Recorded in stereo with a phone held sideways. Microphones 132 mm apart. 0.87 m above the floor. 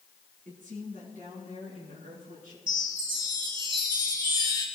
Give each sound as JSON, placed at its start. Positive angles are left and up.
{"t": 0.5, "sound": "a woman speaking", "side_deg": -70, "distance_m": 6.0}
{"t": 2.7, "sound": "a chime", "side_deg": -35, "distance_m": 6.0}